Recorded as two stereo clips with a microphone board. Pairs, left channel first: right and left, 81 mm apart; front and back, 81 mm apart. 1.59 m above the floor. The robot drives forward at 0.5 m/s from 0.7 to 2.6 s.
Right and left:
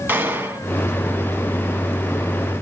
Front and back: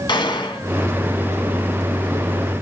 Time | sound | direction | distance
0.1 | a gunshot | 30° left | 2.0 m